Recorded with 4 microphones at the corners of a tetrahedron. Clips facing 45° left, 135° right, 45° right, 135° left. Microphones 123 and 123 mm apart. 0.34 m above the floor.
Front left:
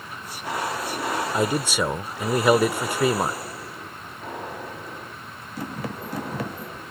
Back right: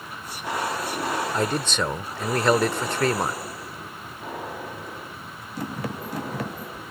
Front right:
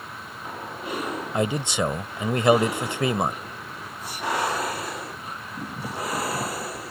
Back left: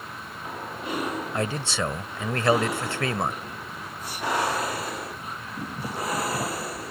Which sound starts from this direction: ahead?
A man speaking, at 1.3 s.